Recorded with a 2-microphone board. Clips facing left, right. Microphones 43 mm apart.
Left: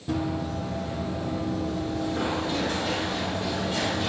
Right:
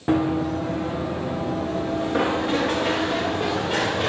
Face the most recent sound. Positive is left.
turn(degrees=-85)